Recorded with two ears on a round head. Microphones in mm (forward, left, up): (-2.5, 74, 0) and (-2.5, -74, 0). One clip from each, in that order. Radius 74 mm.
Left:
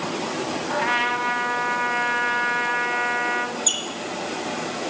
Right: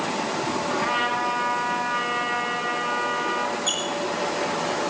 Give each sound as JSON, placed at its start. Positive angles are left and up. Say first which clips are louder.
{"t": 0.7, "sound": "a trumpet", "louder": "left 3 dB", "side_deg": 55, "distance_m": 4.0}
{"t": 3.7, "sound": "a squeak", "louder": "left 2 dB", "side_deg": 70, "distance_m": 5.0}